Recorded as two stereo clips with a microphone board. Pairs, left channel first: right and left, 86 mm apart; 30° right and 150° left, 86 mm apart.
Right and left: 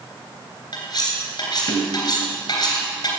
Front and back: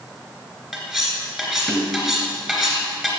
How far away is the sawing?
No sawing in this recording.